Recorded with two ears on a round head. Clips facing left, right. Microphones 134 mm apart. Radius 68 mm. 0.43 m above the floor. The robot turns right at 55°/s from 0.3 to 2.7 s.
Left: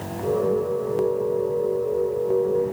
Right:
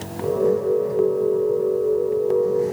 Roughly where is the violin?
I don't hear a violin.